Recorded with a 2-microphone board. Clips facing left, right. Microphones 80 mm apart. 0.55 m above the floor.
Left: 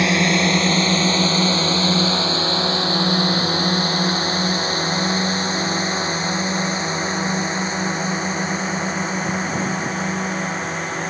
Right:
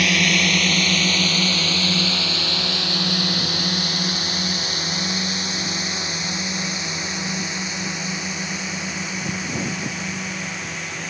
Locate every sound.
0.0 s a drone: 30° left (ahead or behind); by 11.1 s 40° left (ahead or behind)